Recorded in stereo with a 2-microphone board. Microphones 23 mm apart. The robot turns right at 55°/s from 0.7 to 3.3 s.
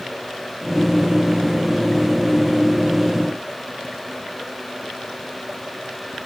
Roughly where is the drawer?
No drawer in this recording.